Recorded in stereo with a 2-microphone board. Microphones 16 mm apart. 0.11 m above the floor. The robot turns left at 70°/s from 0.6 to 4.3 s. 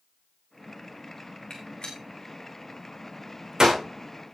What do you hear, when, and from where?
1.5 s a gunshot: 75° left (ahead or behind), 3.5 m; by 3.8 s 55° right (ahead or behind), 3.5 m